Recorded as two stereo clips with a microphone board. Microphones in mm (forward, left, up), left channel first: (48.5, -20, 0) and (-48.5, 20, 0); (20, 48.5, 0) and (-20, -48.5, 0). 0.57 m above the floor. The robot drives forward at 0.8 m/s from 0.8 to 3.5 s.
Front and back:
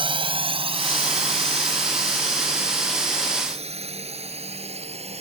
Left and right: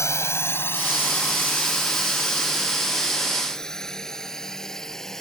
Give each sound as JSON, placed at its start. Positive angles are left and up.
{"t": 0.0, "sound": "a drone", "azimuth_deg": 130}